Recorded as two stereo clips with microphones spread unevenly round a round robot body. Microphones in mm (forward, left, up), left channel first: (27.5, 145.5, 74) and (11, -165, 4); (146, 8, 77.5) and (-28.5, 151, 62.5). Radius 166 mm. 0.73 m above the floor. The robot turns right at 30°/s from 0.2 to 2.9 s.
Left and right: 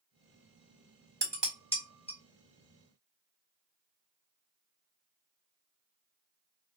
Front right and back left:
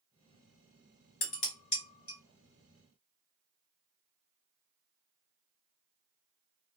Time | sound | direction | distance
1.2 | dishes clattering | 15° right | 1.8 m